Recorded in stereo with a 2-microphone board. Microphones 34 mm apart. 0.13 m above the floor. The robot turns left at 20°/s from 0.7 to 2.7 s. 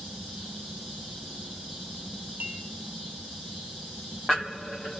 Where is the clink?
65° right (ahead or behind), 3 m; by 2.6 s 70° right (ahead or behind), 3 m.